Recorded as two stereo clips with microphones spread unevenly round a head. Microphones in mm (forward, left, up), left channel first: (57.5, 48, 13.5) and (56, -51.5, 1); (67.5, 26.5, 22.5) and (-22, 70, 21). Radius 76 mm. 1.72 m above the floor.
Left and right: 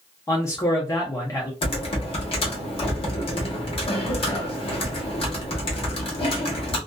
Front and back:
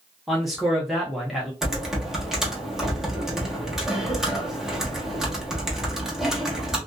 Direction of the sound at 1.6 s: 70° left.